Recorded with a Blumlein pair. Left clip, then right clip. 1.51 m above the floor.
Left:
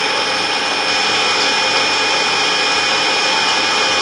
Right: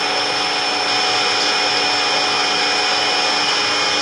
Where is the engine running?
15° left, 0.7 m.